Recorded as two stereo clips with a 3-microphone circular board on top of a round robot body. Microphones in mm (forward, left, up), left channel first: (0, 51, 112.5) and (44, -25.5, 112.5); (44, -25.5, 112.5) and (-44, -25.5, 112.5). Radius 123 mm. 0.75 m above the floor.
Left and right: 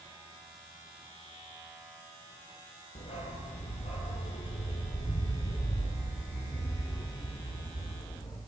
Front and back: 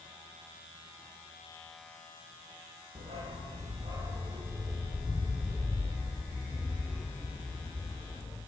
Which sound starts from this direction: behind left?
A dog barking, at 3.0 s.